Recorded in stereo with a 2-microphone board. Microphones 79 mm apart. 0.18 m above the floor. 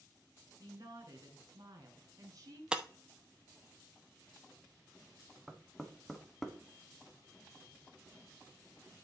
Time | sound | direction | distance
0.6 | a woman speaking | 55° right (ahead or behind) | 2.5 m
2.7 | breaking glass | 10° right (ahead or behind) | 0.6 m
5.5 | knocking | centre (ahead or behind) | 1.0 m